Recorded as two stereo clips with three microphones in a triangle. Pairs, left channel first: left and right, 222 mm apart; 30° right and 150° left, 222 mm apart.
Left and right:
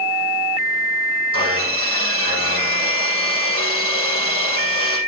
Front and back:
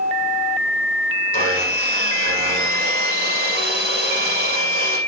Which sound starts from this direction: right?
Sawing, at 1.3 s.